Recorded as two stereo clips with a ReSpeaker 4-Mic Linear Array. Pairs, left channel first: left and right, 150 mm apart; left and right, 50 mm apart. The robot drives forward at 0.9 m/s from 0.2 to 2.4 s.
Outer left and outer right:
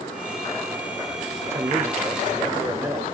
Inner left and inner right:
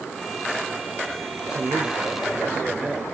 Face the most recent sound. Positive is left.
turn(degrees=-10)  # may be behind; listen again after turning